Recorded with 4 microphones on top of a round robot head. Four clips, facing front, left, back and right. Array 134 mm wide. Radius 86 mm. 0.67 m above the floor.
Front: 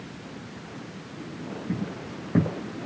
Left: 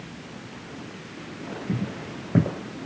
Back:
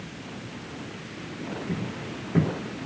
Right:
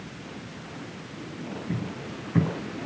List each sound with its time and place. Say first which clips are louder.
1.7 s footsteps: left 5 dB, even; 70° left, 1.9 m